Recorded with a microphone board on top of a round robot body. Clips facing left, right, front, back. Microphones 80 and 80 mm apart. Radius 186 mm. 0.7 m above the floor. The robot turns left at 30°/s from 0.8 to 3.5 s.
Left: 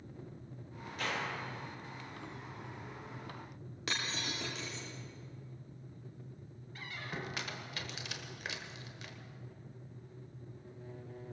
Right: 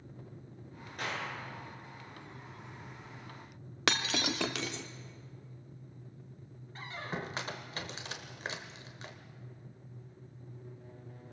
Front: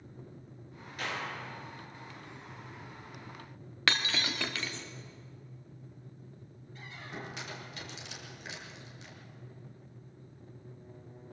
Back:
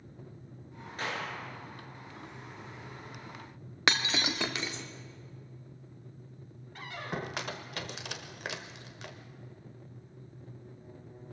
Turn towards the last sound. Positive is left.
turn(degrees=-150)